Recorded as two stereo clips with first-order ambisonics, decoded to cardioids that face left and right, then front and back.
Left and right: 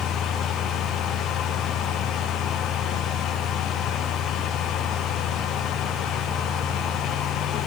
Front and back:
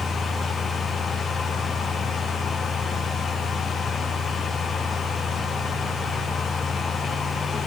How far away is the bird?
No bird in this recording.